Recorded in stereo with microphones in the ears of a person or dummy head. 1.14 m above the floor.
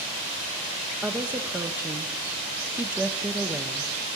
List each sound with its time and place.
1.0 s a woman speaking: 10° right (ahead or behind), 0.7 m